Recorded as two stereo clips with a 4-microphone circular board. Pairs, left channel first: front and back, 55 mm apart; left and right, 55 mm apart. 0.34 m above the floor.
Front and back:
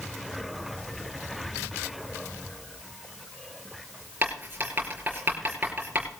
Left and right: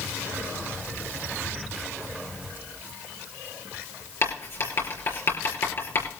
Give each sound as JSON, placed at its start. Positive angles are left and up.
{"t": 1.4, "sound": "whispering", "azimuth_deg": 75, "distance_m": 7.5}
{"t": 4.2, "sound": "writing", "azimuth_deg": 125, "distance_m": 5.5}